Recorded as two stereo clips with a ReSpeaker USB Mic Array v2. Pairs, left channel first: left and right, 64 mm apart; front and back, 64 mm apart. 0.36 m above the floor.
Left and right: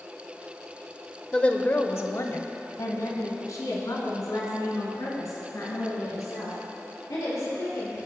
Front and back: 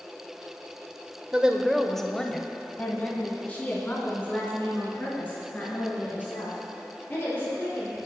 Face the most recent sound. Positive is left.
turn(degrees=60)